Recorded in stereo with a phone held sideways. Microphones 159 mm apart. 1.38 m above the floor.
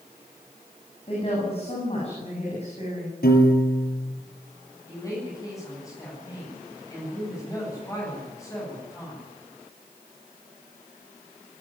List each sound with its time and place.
1.1 s a woman speaking: 40° left (ahead or behind), 9 m; by 3.1 s 45° left (ahead or behind), 9 m
3.2 s a piano: 75° left (ahead or behind), 6 m
4.9 s a woman speaking: 20° left (ahead or behind), 9.5 m